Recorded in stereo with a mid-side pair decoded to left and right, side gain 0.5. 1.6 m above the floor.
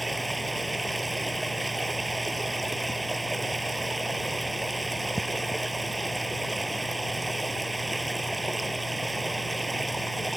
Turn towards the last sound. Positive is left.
turn(degrees=-15)